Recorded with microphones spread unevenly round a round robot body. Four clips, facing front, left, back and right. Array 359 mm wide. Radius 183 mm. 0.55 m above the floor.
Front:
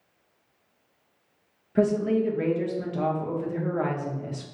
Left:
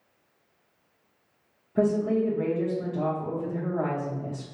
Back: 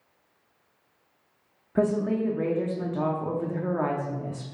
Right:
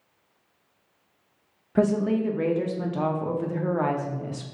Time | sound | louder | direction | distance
1.8 | a woman speaking | right 1 dB, front 2 dB | 140° right | 0.6 m